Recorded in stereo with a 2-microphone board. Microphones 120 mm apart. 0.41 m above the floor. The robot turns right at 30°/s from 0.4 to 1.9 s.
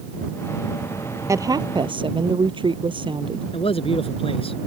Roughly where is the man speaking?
Left.